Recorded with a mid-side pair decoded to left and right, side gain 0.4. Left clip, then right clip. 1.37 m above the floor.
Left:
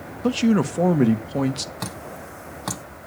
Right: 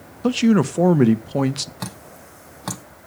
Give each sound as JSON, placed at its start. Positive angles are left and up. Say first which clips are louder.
{"t": 0.2, "sound": "a man speaking", "louder": "right 2 dB", "azimuth_deg": -25, "distance_m": 1.1}
{"t": 1.8, "sound": "dripping", "louder": "left 3 dB", "azimuth_deg": 0, "distance_m": 1.1}